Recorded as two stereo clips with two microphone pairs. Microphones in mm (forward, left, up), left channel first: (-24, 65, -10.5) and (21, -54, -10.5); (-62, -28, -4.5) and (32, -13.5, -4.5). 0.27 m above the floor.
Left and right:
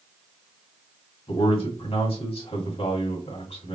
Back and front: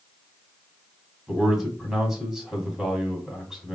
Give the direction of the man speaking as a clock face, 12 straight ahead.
9 o'clock.